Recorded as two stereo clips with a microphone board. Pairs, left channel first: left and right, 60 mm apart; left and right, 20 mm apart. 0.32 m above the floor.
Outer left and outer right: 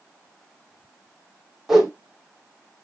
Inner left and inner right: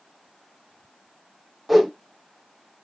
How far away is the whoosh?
About 2 m.